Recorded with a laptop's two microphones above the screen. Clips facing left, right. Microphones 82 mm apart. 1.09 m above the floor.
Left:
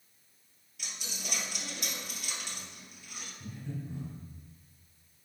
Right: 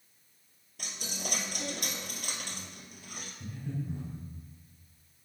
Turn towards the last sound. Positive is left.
turn(degrees=-15)  # may be behind; listen again after turning